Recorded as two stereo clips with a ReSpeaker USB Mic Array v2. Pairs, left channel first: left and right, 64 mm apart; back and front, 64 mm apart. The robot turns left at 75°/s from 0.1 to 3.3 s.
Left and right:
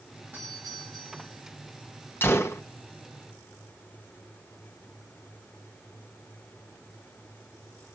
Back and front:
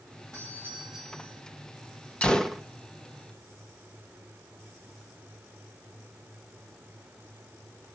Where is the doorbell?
30° right, 8.5 m; by 1.4 s 115° right, 8.5 m.